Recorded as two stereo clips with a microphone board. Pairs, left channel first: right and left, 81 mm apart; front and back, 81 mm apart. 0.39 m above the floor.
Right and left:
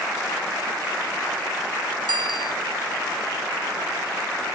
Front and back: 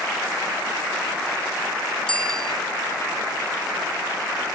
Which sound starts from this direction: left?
A bicycle bell, at 2.1 s.